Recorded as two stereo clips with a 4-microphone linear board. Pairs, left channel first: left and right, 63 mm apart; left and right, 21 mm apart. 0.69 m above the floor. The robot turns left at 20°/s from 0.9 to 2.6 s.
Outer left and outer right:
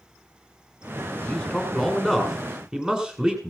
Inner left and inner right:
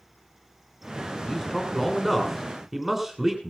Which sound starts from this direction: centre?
A man speaking, at 1.3 s.